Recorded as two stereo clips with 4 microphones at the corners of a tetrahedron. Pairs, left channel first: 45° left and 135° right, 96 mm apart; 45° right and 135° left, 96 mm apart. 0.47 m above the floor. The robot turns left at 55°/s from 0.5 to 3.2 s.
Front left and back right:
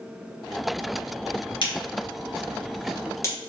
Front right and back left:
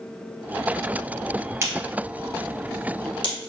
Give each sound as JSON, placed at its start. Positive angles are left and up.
{"t": 1.6, "sound": "a crack", "azimuth_deg": 75, "distance_m": 2.0}